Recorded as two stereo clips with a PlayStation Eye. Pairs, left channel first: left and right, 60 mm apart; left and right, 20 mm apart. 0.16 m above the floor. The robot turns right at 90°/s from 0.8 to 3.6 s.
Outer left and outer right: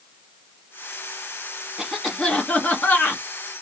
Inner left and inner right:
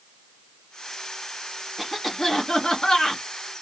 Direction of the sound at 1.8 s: 10° right (ahead or behind).